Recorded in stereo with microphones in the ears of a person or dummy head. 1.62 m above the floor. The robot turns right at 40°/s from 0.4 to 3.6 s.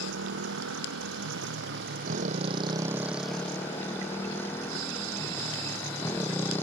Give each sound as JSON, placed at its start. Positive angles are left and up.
{"t": 0.0, "sound": "a motorcycle", "azimuth_deg": -115}